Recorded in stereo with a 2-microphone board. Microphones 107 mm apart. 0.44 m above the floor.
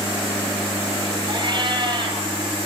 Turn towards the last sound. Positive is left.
turn(degrees=-45)  # may be behind; listen again after turning